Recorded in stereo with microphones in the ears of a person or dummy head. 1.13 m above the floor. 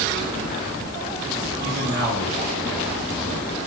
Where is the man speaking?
25° right (ahead or behind), 7 m.